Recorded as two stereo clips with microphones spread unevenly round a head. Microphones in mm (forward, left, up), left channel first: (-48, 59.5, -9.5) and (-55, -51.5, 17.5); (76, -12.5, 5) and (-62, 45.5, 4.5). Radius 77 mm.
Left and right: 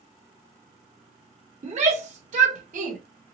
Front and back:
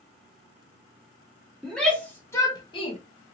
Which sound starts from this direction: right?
A shout, at 1.6 s.